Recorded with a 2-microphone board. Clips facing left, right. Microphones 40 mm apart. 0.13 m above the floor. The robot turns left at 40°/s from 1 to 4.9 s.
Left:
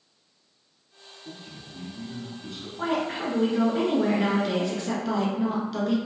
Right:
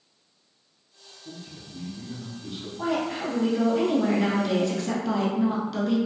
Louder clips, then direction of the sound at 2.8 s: Even; 85° left.